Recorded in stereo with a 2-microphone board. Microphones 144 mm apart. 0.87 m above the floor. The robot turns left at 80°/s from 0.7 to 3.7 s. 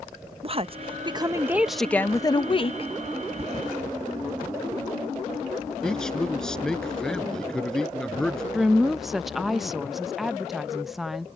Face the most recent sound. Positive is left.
turn(degrees=0)  # may be behind; listen again after turning